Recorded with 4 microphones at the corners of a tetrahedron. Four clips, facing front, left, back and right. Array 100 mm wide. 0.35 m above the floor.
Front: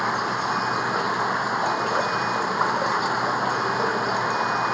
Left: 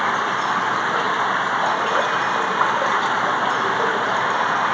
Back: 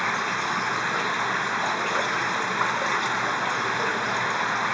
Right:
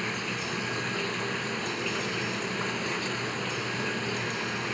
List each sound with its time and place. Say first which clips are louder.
0.0 s running water: left 13 dB, front 2 dB; 70° left